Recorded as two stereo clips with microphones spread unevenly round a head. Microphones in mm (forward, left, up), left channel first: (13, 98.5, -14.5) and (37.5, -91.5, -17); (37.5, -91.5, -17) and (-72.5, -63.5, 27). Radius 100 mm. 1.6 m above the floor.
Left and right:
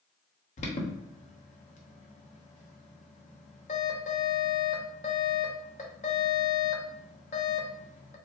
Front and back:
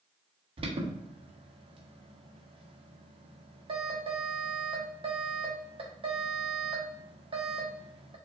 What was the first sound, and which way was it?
An alarm, 145° left.